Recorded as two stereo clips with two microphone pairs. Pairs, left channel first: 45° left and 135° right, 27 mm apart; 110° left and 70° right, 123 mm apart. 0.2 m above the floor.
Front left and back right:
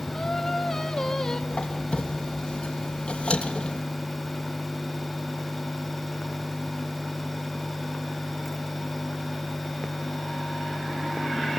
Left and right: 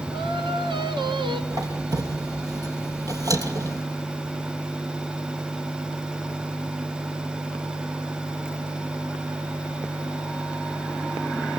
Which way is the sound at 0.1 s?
25° right.